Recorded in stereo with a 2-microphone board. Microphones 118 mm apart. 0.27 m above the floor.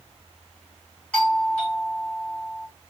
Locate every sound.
1.1 s a doorbell: 10° left (ahead or behind), 3 m